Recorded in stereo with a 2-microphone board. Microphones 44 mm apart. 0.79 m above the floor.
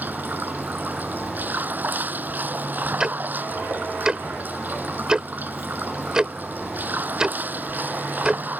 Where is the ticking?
15° right (ahead or behind).